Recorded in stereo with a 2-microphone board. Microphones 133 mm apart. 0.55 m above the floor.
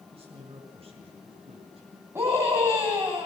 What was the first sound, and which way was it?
A man speaking, 45° right (ahead or behind).